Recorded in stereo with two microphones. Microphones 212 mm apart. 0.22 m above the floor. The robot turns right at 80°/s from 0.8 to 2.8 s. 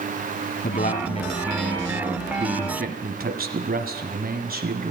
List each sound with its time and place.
0.6 s a man speaking: 105° left, 1.4 m; by 4.9 s 95° right, 1.4 m